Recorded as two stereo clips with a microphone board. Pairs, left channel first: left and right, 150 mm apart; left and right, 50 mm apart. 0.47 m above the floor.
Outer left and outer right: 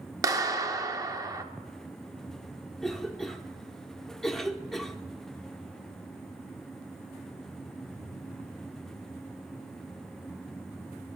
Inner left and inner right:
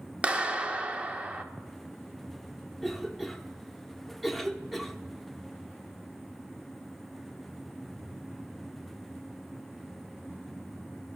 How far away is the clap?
About 0.7 m.